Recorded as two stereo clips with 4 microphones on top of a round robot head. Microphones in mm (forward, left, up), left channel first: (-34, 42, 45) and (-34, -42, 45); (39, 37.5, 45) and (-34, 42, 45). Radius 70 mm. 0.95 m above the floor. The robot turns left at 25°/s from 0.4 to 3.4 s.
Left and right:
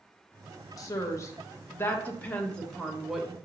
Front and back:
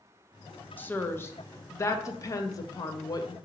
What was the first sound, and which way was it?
A woman speaking, 55° left.